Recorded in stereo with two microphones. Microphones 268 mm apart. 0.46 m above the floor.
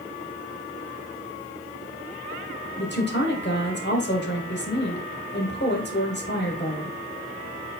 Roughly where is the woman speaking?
Left.